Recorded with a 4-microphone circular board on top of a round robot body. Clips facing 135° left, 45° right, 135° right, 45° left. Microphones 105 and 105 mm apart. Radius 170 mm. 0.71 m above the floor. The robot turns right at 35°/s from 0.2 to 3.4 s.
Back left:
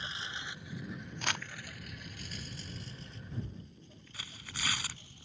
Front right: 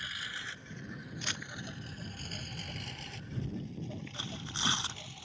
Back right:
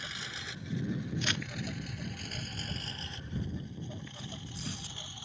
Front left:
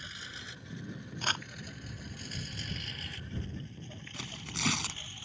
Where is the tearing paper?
20° left.